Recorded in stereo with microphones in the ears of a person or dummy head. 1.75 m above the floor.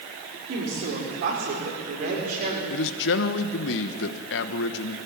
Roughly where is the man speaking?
Left.